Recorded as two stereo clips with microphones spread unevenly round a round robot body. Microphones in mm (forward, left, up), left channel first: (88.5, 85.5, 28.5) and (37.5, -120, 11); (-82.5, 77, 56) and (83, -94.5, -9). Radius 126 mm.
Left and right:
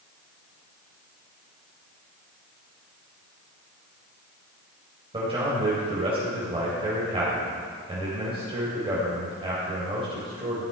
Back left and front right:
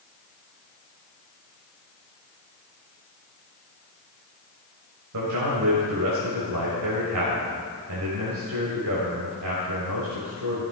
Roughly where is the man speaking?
Ahead right.